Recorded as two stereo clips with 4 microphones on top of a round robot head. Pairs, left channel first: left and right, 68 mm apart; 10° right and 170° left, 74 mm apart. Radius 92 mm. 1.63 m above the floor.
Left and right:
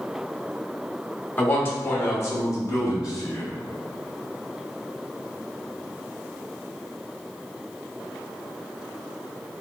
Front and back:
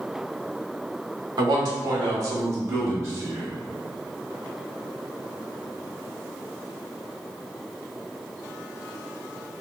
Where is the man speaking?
155° left, 1.0 m; by 3.6 s 115° left, 1.9 m.